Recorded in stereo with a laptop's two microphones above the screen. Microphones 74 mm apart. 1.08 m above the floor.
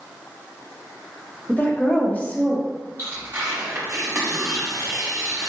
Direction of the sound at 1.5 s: 25° left (ahead or behind).